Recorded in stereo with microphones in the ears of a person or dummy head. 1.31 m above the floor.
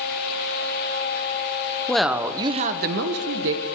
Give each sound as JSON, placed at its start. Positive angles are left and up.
{"t": 1.9, "sound": "a woman speaking", "side_deg": 5, "distance_m": 0.7}